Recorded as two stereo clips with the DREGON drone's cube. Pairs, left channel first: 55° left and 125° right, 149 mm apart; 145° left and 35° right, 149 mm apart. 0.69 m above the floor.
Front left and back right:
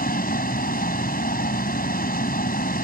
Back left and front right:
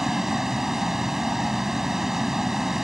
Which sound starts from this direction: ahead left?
A vehicle, at 0.0 s.